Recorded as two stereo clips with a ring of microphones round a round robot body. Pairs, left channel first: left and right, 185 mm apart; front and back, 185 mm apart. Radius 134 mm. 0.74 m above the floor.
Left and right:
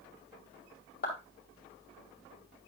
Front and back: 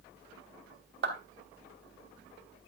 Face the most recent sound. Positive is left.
turn(degrees=150)